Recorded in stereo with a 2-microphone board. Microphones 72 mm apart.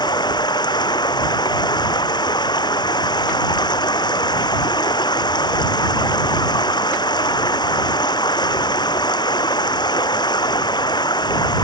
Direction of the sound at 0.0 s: 85° left.